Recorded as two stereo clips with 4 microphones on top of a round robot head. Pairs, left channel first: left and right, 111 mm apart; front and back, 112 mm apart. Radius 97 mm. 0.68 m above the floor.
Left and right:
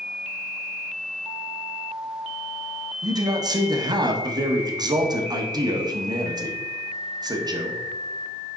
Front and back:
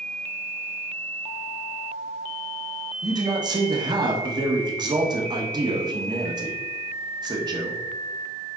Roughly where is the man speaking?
Behind right.